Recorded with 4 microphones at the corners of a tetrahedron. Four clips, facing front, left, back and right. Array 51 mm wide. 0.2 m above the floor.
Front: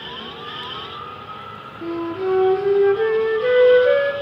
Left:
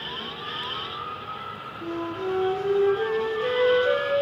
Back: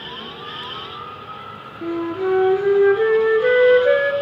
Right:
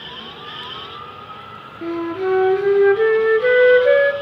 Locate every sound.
1.8 s a flute: 115° right, 2 m